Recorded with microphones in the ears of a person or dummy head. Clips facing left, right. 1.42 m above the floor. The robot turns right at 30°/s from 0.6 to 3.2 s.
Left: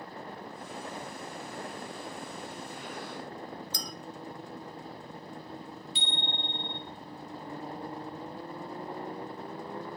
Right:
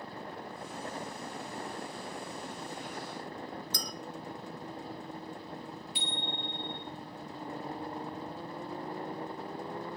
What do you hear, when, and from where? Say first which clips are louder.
3.7 s a clink: even; 50° right (ahead or behind), 0.7 m
6.0 s a bicycle bell: even; 25° left (ahead or behind), 2 m